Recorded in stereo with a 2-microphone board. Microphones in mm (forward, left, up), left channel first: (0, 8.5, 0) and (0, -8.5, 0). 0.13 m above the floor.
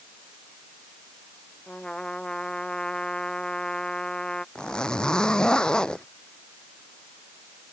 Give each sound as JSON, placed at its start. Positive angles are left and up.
{"t": 1.7, "sound": "a trumpet", "side_deg": 50}
{"t": 4.5, "sound": "a zipper", "side_deg": 60}